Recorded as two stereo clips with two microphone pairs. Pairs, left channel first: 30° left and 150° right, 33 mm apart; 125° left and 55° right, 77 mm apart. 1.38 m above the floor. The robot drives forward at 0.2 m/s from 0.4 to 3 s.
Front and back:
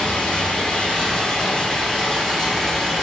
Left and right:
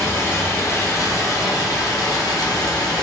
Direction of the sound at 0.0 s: 80° left.